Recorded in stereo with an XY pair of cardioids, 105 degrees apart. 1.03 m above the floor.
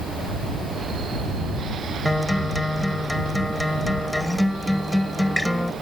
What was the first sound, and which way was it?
A guitar, 5° left.